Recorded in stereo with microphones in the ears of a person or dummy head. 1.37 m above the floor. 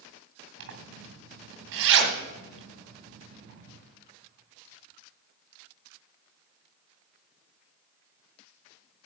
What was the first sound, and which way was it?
A zipper, 60° right (ahead or behind).